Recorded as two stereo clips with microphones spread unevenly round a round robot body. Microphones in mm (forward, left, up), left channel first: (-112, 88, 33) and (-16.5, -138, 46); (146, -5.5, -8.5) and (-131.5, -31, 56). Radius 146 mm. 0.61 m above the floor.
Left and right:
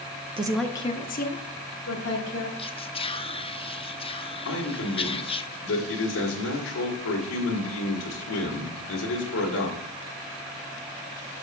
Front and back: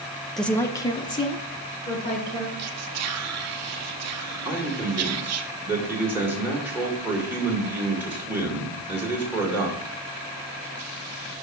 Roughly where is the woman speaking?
Ahead right.